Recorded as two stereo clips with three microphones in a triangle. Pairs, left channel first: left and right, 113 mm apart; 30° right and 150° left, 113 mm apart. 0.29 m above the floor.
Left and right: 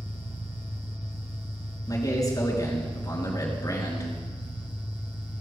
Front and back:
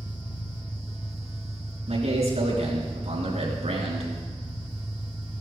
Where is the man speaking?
145° left, 5 m.